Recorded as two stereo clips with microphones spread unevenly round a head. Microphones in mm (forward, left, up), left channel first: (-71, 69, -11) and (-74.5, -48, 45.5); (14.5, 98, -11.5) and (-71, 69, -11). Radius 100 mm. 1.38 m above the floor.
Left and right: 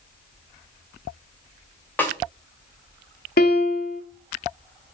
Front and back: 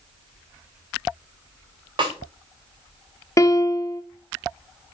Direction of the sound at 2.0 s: 170° left.